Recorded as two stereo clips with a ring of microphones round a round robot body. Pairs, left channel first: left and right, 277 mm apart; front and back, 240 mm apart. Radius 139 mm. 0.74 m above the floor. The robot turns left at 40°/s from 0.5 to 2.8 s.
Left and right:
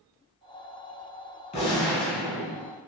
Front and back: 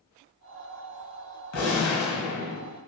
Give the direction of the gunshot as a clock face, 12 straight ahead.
11 o'clock.